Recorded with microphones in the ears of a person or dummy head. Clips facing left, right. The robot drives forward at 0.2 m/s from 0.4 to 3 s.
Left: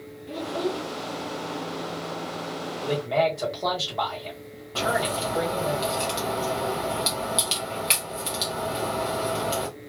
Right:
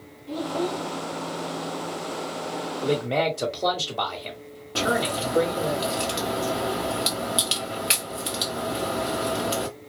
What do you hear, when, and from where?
0.3 s a child speaking: 30° left (ahead or behind), 0.9 m; by 0.8 s 25° left (ahead or behind), 1.0 m
2.8 s a man speaking: 25° right (ahead or behind), 0.9 m
4.8 s a crack: 5° right (ahead or behind), 0.7 m